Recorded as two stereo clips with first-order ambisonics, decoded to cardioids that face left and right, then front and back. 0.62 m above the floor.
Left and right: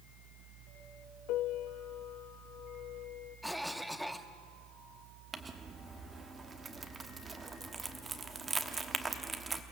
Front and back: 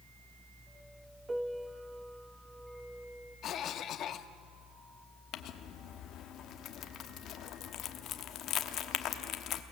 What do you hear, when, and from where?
1.3 s a piano: 105° left, 0.6 m
3.4 s a cough: 5° right, 0.8 m
5.3 s crumpling: 25° right, 1.1 m